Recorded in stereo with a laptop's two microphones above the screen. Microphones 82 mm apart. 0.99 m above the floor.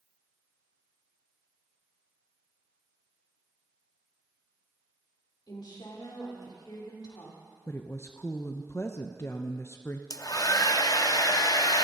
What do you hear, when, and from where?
5.5 s a woman speaking: 65° left (ahead or behind), 3.5 m
7.7 s a woman speaking: 30° left (ahead or behind), 0.5 m
10.1 s a hair dryer: 45° left (ahead or behind), 0.6 m